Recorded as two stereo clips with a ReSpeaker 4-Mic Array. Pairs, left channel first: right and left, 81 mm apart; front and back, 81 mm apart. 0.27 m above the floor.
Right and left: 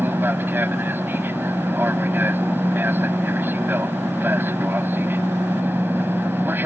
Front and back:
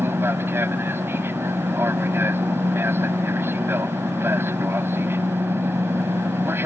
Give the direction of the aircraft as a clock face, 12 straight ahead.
7 o'clock.